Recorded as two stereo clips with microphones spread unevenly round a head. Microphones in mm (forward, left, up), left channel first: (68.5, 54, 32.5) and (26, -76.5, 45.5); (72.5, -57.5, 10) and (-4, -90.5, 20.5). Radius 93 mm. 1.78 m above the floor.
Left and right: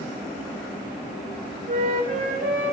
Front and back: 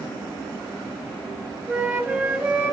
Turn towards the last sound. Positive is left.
turn(degrees=-85)